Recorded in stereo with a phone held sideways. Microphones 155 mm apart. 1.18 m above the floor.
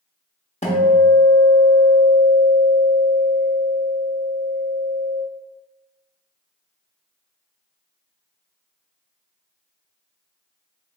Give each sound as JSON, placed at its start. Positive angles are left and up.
{"t": 0.6, "sound": "a guitar", "side_deg": 45, "distance_m": 0.8}